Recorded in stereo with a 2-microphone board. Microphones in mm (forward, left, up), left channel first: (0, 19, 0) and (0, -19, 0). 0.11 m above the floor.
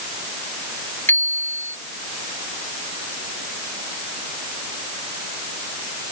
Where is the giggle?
I don't hear a giggle.